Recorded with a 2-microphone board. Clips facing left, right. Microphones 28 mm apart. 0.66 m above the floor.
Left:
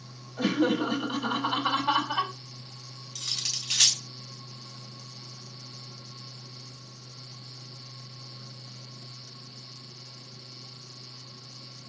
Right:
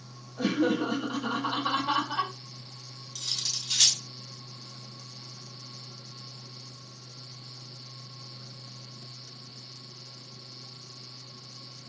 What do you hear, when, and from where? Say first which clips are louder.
0.4 s laughter: left 1 dB; 75° left (ahead or behind), 3 m
3.1 s cutlery clinking: even; 80° left, 1.6 m